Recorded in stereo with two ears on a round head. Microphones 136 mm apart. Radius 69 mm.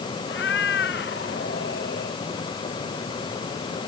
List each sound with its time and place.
0.3 s a cat meowing: 85° left; by 2.2 s 80° left